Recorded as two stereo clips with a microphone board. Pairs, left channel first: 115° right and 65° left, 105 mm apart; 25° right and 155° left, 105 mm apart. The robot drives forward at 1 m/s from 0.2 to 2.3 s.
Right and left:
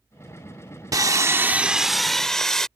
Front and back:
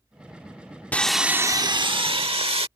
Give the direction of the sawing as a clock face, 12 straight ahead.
11 o'clock.